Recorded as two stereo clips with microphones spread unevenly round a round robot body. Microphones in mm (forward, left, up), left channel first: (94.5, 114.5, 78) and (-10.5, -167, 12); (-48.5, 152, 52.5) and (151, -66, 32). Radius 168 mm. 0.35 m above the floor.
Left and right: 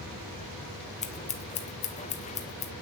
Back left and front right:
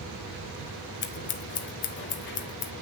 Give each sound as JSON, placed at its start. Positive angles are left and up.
{"t": 1.0, "sound": "scissors", "azimuth_deg": 140, "distance_m": 0.8}